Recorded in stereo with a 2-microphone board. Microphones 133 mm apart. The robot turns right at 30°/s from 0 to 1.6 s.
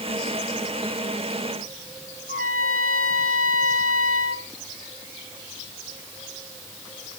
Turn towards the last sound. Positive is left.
turn(degrees=-85)